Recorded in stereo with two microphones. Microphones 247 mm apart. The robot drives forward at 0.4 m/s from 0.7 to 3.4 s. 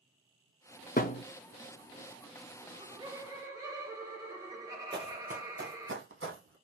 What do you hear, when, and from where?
1.0 s a thud: 35° left (ahead or behind), 0.5 m; by 1.2 s 30° left (ahead or behind), 0.6 m
2.6 s laughter: 20° right (ahead or behind), 0.7 m; by 5.9 s 15° right (ahead or behind), 0.9 m
4.9 s running footsteps: 20° right (ahead or behind), 0.8 m; by 6.5 s 60° right (ahead or behind), 1.5 m